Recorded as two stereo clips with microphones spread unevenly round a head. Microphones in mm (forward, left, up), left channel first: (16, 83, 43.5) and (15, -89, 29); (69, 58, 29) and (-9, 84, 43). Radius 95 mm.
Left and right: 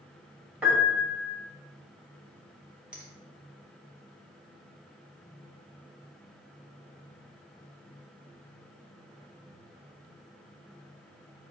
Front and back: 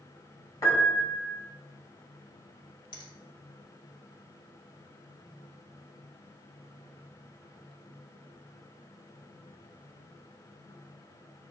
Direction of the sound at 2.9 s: 5° right.